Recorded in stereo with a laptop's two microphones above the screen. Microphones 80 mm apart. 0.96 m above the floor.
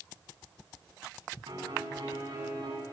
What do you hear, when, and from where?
1.5 s a piano: 75° right (ahead or behind), 8.5 m